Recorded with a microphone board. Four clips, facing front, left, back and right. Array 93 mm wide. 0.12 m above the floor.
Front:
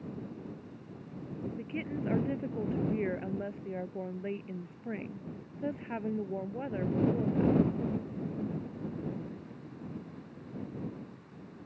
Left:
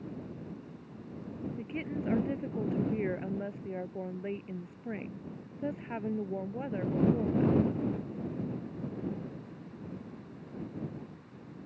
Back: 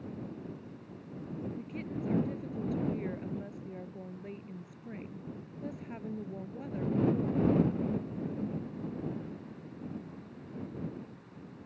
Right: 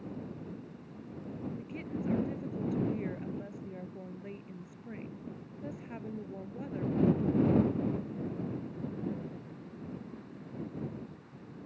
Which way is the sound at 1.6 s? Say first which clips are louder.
Left 2 dB, front 2 dB; 45° left.